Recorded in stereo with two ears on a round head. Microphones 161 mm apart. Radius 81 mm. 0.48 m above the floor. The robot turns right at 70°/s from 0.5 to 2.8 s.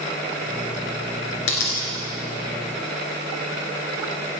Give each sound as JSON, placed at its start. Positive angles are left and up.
{"t": 1.5, "sound": "a dropped coin", "side_deg": 80, "distance_m": 2.0}